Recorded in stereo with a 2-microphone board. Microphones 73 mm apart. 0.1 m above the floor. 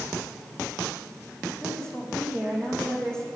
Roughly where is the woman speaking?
Centre.